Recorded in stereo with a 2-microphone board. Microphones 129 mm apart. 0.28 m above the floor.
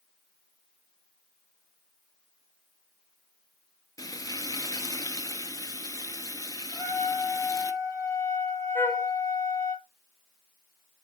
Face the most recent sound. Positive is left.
turn(degrees=15)  # may be behind; listen again after turning